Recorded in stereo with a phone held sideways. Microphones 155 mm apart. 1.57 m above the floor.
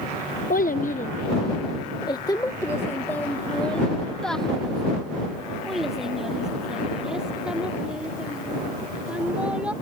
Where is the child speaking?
65° left (ahead or behind); by 9.7 s 10° right (ahead or behind).